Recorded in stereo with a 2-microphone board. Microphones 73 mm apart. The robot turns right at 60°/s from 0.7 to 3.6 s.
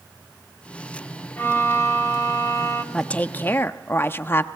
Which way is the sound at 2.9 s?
25° left.